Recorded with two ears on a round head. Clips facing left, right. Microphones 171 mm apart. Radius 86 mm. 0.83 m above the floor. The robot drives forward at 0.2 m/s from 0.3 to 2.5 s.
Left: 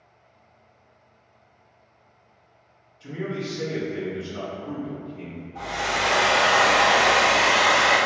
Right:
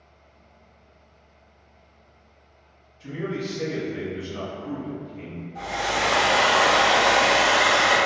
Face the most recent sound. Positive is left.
turn(degrees=-20)  # may be behind; listen again after turning